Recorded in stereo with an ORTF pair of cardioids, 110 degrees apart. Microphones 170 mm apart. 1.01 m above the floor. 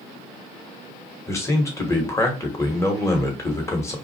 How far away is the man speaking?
About 1.2 m.